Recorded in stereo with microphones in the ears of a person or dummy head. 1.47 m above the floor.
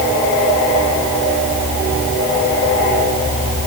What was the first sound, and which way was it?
Only background noise.